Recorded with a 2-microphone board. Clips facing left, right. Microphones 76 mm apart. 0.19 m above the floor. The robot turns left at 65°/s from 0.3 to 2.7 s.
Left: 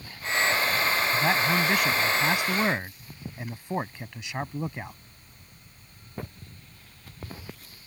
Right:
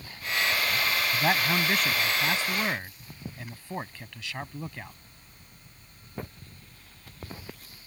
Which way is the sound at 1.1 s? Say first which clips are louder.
Even; 10° right (ahead or behind).